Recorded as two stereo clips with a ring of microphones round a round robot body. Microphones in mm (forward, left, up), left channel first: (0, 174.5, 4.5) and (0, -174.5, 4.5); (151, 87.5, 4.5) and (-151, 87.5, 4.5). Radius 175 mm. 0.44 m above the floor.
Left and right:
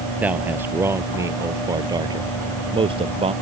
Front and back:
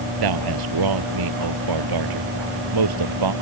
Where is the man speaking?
175° right; by 3.3 s 165° right.